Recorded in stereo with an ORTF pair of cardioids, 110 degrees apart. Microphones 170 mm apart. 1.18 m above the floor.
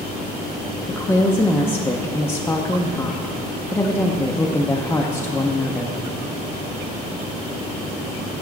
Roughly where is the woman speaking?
Ahead.